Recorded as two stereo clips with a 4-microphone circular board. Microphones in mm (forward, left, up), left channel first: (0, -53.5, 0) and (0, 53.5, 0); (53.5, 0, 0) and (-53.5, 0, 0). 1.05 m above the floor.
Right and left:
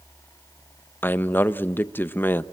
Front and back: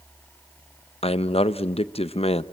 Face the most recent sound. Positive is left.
turn(degrees=-20)